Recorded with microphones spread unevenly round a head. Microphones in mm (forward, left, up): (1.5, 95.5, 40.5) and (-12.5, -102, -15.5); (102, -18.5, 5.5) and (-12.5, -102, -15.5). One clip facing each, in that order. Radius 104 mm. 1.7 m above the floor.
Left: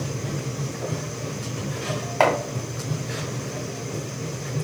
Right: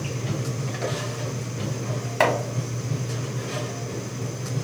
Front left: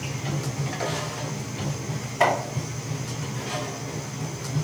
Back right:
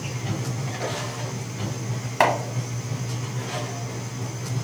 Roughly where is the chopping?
Behind.